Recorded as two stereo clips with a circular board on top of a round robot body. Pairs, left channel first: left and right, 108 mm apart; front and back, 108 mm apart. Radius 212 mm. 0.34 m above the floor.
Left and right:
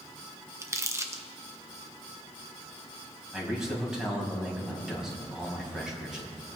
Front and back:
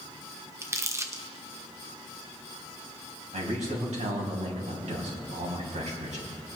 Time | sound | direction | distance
0.6 | crumpling | 135° right | 1.4 m
3.3 | a man speaking | 175° right | 3.5 m